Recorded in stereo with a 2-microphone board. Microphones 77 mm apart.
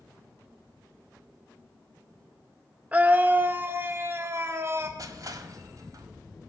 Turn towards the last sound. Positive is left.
turn(degrees=-50)  # may be behind; listen again after turning